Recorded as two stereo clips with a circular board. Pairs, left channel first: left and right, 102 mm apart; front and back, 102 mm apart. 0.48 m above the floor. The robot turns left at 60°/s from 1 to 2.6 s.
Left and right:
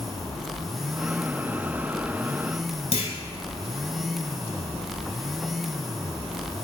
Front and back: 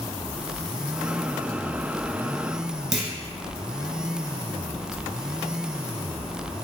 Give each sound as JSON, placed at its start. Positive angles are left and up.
{"t": 2.9, "sound": "a clunk", "azimuth_deg": 90, "distance_m": 0.7}